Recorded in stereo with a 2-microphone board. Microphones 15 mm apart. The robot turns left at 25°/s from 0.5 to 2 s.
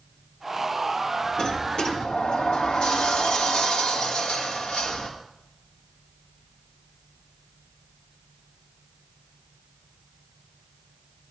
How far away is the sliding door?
About 1.7 m.